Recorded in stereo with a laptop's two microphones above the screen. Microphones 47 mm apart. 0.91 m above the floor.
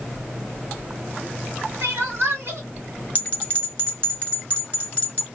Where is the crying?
65° right (ahead or behind), 1.4 m.